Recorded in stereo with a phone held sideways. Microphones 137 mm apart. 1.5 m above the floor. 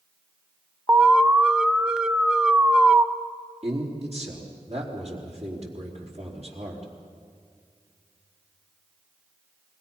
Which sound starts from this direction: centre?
An alarm, at 0.9 s.